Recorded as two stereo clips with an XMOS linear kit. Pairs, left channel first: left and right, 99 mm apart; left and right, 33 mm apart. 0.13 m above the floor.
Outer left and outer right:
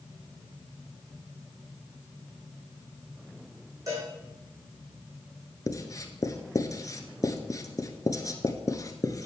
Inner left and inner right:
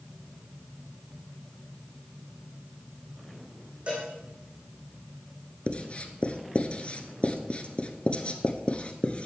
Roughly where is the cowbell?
Right.